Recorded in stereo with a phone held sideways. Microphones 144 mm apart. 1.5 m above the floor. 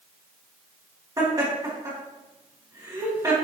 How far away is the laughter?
About 2.5 m.